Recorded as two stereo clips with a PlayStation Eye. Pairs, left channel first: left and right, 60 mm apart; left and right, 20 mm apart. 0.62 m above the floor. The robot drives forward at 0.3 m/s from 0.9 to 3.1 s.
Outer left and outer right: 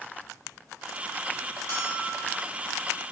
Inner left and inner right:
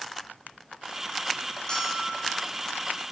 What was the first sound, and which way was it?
A bell, 55° left (ahead or behind).